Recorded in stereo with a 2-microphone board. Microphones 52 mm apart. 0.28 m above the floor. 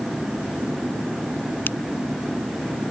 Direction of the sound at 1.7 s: 40° left (ahead or behind).